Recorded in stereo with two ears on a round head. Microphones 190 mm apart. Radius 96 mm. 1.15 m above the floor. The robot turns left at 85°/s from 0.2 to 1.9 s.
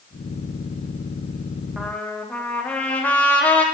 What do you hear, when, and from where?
1.8 s a trumpet: 5° right (ahead or behind), 1.1 m; by 3.6 s 5° left (ahead or behind), 1.1 m